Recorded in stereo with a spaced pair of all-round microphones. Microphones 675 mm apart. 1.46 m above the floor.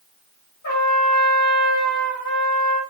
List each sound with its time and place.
0.6 s a trumpet: 25° left (ahead or behind), 2.5 m